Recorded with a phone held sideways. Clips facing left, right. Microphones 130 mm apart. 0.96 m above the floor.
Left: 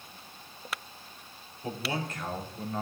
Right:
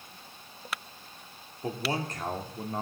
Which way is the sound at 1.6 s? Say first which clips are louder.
Right 2 dB; 40° right (ahead or behind).